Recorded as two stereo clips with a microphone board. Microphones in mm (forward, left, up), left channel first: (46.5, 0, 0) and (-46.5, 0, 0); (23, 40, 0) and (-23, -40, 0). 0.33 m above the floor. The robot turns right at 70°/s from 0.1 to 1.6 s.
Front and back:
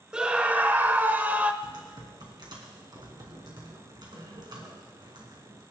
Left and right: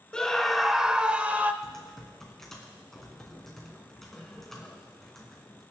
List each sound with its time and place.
0.1 s a scream: 120° left, 0.9 m; by 1.5 s 145° right, 0.9 m
1.6 s typing on a keyboard: 145° left, 3 m